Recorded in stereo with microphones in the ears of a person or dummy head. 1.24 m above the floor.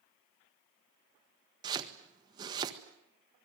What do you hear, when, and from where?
1.6 s chopping: 20° right (ahead or behind), 1.4 m